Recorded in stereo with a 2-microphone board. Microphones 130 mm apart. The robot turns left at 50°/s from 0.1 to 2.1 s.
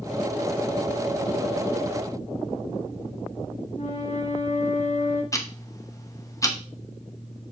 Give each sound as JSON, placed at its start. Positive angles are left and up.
{"t": 3.8, "sound": "a flute", "side_deg": 60, "distance_m": 2.0}
{"t": 5.3, "sound": "ticking", "side_deg": 25, "distance_m": 1.0}